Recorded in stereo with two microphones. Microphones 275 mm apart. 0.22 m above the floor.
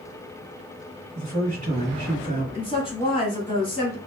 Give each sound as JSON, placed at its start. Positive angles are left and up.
{"t": 1.1, "sound": "a man speaking", "side_deg": -25, "distance_m": 1.6}
{"t": 2.5, "sound": "a woman speaking", "side_deg": 20, "distance_m": 1.4}